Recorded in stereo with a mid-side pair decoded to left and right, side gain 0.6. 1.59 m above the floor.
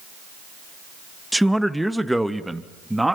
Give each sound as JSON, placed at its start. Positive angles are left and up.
{"t": 1.3, "sound": "a man speaking", "azimuth_deg": 0, "distance_m": 1.7}